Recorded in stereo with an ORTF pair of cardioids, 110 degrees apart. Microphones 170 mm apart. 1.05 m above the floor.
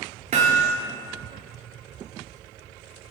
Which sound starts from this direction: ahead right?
Hammering, at 0.3 s.